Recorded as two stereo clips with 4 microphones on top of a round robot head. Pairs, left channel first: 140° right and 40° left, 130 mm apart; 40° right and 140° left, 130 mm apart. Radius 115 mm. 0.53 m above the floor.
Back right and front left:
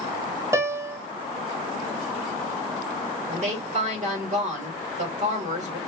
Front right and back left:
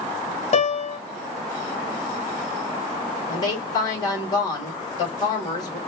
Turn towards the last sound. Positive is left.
turn(degrees=15)